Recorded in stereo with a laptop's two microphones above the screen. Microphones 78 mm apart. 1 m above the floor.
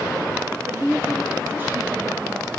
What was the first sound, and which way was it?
A woman speaking, 30° right (ahead or behind).